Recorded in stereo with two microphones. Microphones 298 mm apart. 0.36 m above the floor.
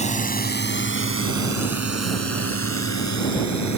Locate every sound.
0.0 s a drone: 25° left (ahead or behind); by 3.8 s 65° left (ahead or behind)